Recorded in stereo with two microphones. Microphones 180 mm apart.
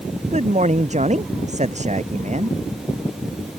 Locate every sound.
0.3 s a man speaking: 40° right (ahead or behind)